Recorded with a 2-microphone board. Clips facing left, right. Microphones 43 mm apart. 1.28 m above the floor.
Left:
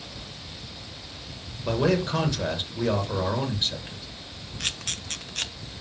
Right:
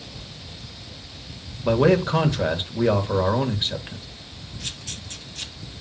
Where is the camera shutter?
60° left (ahead or behind), 0.8 m.